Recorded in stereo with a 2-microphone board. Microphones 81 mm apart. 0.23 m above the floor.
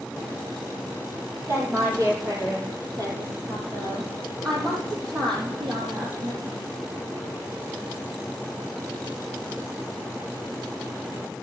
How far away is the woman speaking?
About 5 m.